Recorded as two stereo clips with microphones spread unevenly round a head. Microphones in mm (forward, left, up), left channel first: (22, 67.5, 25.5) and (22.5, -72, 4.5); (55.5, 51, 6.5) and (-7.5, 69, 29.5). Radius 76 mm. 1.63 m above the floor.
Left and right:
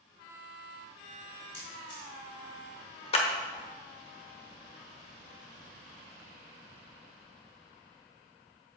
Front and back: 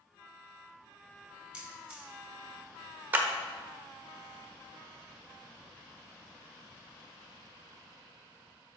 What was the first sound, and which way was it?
A camera shutter, 90° left.